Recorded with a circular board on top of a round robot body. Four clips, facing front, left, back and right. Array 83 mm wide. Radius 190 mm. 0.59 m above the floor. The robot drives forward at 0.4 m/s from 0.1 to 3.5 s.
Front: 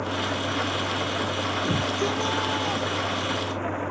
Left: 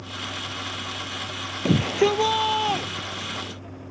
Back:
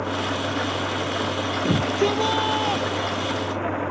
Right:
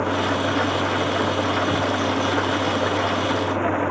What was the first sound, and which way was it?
An engine running, 95° right.